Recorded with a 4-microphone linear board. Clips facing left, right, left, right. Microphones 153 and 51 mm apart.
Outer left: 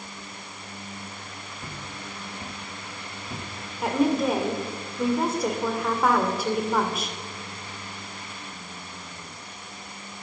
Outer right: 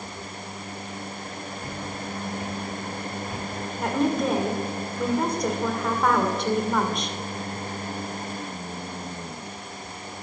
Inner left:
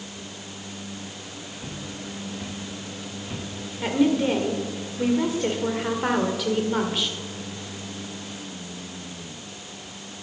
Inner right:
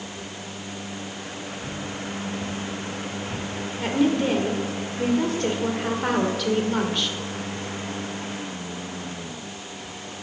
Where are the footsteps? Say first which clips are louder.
Outer right 5 dB, inner right 3 dB; 40° left (ahead or behind), 6 m; by 3.5 s 25° left (ahead or behind), 5 m.